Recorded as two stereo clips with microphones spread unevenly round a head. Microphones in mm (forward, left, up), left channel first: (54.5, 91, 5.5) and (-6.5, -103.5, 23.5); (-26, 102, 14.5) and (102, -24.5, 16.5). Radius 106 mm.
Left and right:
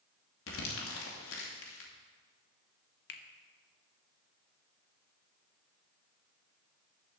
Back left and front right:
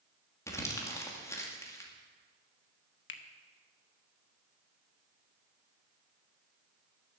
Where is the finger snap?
120° left, 1.0 m.